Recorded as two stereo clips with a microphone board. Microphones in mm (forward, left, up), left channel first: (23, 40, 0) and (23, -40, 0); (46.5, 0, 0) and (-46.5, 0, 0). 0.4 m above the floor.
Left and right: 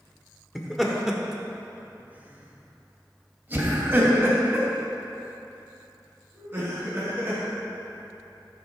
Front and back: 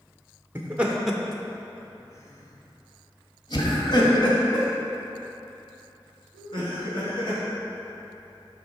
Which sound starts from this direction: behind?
Laughter, at 0.6 s.